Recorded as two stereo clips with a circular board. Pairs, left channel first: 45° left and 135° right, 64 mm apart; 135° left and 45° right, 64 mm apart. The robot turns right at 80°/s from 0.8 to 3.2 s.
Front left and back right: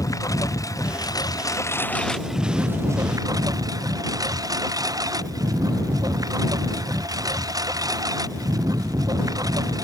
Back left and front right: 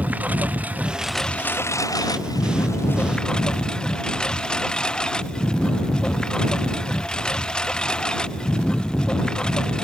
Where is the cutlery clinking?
I don't hear cutlery clinking.